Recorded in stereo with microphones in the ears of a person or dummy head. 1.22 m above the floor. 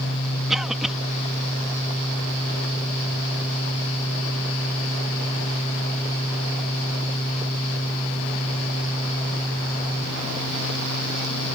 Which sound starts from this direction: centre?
A cough, at 0.5 s.